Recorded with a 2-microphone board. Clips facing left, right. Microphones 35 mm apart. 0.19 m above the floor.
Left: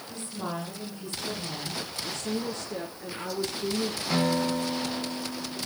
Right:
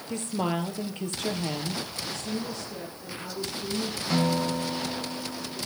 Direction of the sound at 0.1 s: 65° right (ahead or behind).